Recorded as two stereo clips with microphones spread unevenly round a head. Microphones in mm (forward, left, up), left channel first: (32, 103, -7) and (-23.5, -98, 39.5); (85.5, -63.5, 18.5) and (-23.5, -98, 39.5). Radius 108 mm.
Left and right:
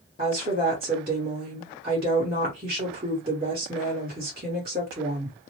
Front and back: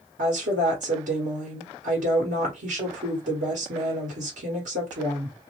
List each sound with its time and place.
0.2 s a woman speaking: 170° right, 1.2 m